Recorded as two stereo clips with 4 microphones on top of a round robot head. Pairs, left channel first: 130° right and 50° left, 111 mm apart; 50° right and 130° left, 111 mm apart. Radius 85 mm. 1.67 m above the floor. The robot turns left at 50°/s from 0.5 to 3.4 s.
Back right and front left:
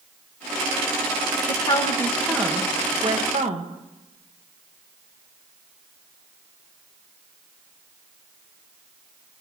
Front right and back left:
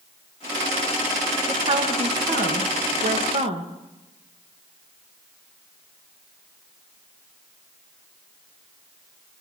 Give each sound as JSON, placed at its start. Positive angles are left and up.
{"t": 1.5, "sound": "a woman speaking", "azimuth_deg": -175, "distance_m": 1.7}